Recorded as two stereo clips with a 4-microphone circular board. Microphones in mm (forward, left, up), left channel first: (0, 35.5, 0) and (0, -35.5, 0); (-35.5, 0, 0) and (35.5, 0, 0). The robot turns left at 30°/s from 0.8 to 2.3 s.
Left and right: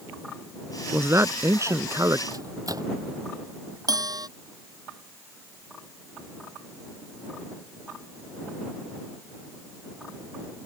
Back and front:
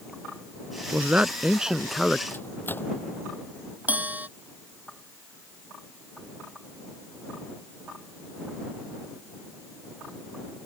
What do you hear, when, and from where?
0.9 s a man speaking: 55° right; by 2.2 s 95° right
2.3 s a microwave: 120° right
3.9 s a bell: 65° right